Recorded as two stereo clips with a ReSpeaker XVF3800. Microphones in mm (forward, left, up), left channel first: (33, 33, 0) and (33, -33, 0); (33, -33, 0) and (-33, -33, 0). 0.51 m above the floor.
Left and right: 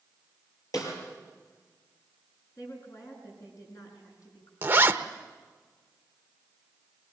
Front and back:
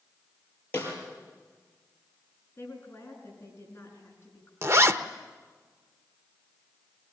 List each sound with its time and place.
0.7 s a snare drum: 60° left, 6.5 m
2.6 s a woman speaking: 55° left, 6 m
4.6 s a zipper: 145° right, 0.9 m